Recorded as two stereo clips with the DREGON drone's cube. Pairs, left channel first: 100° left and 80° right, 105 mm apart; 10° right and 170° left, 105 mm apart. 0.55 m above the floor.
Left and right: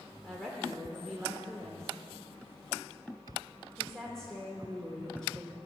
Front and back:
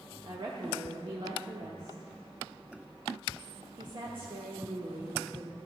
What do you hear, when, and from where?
0.2 s a woman speaking: 175° right, 1.0 m